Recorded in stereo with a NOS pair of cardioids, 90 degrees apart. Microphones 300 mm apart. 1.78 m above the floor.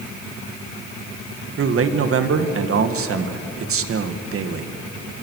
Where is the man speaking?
45° right, 2 m.